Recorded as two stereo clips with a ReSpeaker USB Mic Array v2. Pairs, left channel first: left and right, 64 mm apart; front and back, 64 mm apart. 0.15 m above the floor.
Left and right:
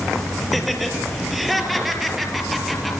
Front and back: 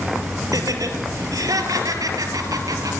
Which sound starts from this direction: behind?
Laughter, at 0.5 s.